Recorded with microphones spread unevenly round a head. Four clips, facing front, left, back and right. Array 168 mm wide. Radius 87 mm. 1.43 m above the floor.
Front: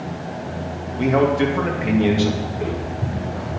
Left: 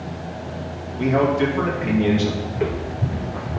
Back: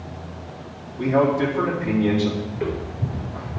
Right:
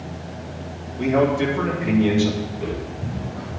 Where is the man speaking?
5° left, 2.5 m.